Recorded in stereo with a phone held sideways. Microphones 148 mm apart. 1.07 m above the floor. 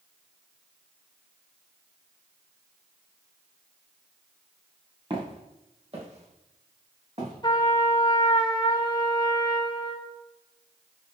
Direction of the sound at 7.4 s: 30° left (ahead or behind).